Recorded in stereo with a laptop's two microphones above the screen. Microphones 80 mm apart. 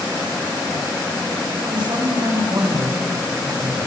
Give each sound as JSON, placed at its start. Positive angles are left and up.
{"t": 1.6, "sound": "a man speaking", "side_deg": -70, "distance_m": 5.5}